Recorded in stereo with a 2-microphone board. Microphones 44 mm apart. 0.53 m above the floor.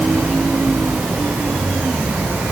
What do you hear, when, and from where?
Only background noise.